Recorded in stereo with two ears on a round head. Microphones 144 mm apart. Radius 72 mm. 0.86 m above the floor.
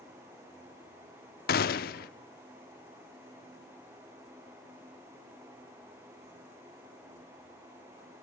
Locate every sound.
1.5 s a gunshot: 65° left (ahead or behind), 0.9 m